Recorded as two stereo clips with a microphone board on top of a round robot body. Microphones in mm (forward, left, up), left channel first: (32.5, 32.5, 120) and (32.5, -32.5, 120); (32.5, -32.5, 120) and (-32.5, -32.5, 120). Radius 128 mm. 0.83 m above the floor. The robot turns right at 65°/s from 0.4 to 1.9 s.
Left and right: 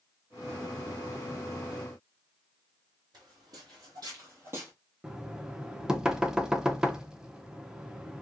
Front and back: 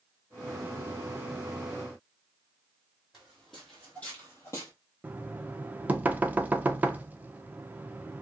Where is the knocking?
155° right, 0.7 m.